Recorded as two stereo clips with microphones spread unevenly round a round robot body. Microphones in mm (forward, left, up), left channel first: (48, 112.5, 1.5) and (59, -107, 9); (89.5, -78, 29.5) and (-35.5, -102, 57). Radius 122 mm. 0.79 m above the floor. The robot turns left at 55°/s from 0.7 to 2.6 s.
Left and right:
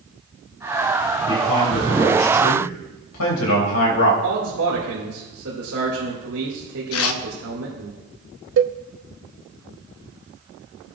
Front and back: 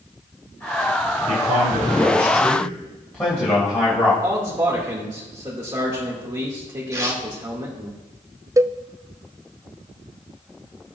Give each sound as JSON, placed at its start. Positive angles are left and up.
{"t": 1.3, "sound": "a man speaking", "azimuth_deg": 165, "distance_m": 3.5}
{"t": 4.2, "sound": "a man speaking", "azimuth_deg": -110, "distance_m": 3.0}
{"t": 6.9, "sound": "tearing paper", "azimuth_deg": 115, "distance_m": 0.7}
{"t": 8.6, "sound": "a cowbell", "azimuth_deg": -95, "distance_m": 0.5}